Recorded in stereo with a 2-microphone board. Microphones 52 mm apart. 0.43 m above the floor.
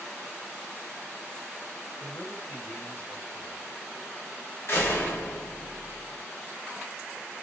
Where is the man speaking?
45° left (ahead or behind), 1.8 m.